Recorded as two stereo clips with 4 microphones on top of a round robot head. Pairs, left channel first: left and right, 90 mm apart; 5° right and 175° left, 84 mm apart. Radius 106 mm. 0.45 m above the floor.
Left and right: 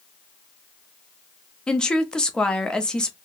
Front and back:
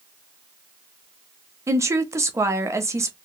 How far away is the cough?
I don't hear a cough.